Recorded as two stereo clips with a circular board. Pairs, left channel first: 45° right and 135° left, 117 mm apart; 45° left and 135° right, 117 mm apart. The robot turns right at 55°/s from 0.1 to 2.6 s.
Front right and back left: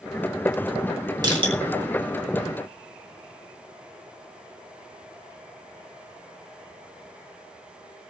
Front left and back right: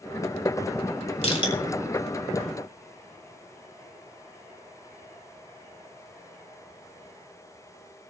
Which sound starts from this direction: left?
Crushing, at 1.2 s.